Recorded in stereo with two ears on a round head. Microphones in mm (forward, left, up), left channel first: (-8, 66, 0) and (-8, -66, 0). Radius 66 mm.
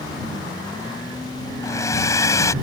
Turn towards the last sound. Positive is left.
turn(degrees=20)  # may be behind; listen again after turning